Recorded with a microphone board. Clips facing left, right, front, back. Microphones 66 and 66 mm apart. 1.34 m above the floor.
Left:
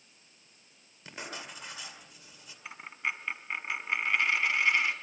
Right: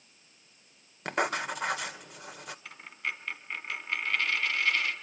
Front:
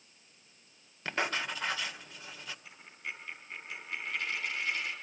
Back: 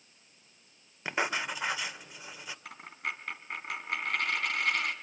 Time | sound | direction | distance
1.1 | writing | 105° right | 2 m
2.6 | a dropped coin | 160° left | 3 m